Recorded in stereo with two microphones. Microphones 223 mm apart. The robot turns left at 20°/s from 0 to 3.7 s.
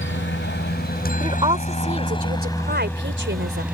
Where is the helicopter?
60° left (ahead or behind); by 3.7 s 5° right (ahead or behind).